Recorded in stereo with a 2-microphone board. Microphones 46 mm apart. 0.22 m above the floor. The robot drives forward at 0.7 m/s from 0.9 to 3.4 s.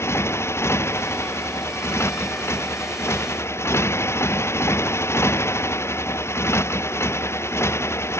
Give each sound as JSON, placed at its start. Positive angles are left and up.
{"t": 0.0, "sound": "a motorcycle", "side_deg": 85}